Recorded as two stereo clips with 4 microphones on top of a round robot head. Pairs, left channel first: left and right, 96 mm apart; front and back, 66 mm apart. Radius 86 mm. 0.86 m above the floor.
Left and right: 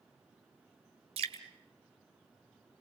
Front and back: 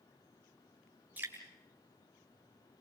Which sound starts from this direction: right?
Dripping, at 1.2 s.